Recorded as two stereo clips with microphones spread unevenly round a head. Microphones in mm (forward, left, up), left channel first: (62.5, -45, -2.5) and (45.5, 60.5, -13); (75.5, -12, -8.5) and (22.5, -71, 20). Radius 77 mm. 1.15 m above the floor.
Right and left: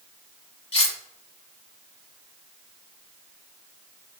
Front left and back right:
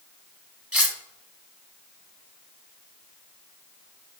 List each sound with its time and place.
0.7 s cutlery clinking: 65° right, 1.2 m